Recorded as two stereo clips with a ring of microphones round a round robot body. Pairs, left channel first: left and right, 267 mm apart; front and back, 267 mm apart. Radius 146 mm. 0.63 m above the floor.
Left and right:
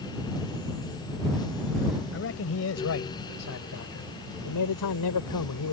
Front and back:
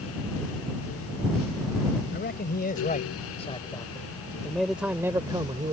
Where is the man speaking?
50° left; by 5.7 s 110° left.